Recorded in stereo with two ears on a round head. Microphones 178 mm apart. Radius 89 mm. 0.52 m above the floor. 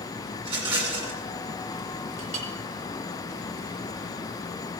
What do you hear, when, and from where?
0.4 s a rattle: 25° right (ahead or behind), 1.8 m
2.2 s a clink: 35° right (ahead or behind), 1.6 m